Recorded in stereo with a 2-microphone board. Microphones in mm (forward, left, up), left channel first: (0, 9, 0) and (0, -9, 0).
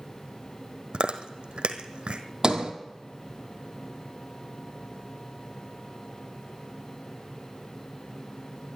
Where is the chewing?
75° right (ahead or behind), 1.2 m.